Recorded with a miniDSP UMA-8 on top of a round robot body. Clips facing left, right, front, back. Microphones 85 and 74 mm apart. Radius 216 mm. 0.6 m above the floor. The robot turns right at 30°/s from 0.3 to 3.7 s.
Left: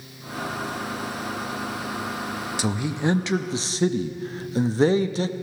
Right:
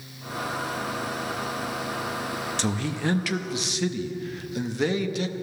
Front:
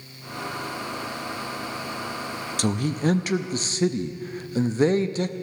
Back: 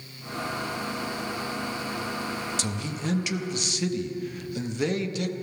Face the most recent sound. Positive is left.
turn(degrees=45)